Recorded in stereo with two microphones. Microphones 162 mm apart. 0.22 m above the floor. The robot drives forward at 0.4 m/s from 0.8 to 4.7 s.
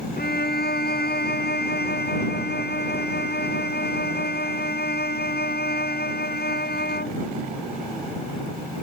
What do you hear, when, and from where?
0.2 s a violin: 75° left (ahead or behind); by 7.2 s 80° left